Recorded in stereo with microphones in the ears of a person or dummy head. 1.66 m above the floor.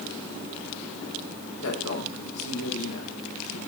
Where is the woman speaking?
80° left, 6.5 m.